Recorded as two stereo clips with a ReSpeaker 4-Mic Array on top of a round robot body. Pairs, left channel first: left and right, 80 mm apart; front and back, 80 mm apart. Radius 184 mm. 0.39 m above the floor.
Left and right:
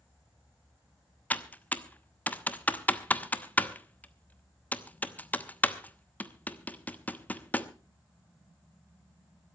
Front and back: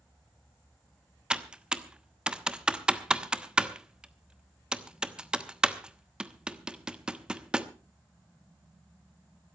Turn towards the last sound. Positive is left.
turn(degrees=120)